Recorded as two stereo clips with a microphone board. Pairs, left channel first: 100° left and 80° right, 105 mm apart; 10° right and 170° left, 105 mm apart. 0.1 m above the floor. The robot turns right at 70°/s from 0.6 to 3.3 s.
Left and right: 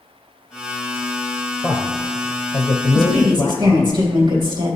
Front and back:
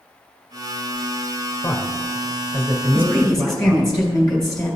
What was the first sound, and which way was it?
A man speaking, straight ahead.